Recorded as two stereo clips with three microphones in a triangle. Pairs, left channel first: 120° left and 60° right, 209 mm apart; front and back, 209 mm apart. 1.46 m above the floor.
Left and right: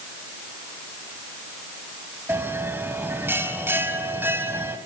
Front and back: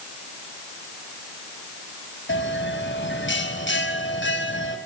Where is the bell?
20° left, 3 m.